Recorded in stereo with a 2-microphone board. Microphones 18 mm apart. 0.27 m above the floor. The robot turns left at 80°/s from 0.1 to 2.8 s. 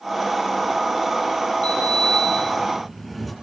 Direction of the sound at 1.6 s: 90° left.